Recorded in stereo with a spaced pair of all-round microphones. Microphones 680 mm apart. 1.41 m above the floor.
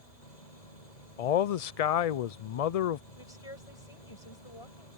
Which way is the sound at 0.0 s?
90° left.